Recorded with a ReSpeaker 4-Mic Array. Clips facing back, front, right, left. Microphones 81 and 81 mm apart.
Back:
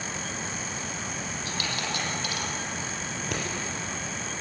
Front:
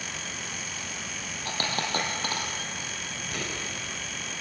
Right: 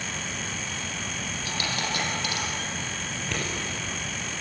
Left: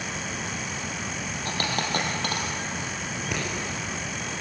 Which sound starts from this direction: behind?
Scissors, at 3.1 s.